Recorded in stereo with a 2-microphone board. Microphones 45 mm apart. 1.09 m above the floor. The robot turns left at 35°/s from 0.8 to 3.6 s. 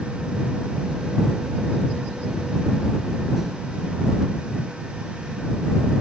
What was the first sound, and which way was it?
Only background noise.